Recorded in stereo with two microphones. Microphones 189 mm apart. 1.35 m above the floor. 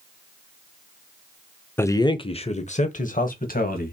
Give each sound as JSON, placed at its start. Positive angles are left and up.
{"t": 1.8, "sound": "a man speaking", "side_deg": 10, "distance_m": 0.6}